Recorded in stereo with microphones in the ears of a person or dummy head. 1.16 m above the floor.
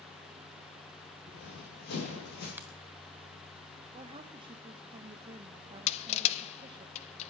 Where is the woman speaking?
25° right (ahead or behind), 0.8 m.